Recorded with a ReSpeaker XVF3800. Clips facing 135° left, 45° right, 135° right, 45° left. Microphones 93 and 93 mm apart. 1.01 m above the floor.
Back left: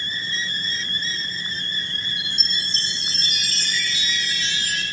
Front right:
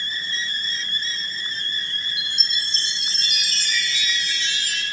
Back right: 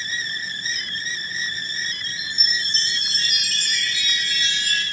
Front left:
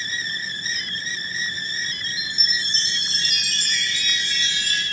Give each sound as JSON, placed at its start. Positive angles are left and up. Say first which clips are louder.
{"t": 2.2, "sound": "a chime", "louder": "back left 1 dB, back right 1 dB", "azimuth_deg": 180, "distance_m": 5.0}